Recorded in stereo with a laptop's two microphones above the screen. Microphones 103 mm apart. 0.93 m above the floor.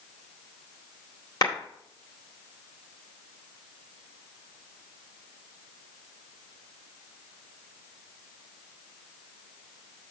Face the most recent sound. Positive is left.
turn(degrees=40)  # may be behind; listen again after turning